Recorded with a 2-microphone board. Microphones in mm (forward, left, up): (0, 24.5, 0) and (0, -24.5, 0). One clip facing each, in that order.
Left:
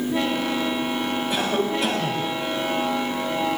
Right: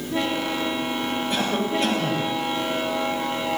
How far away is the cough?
About 8 m.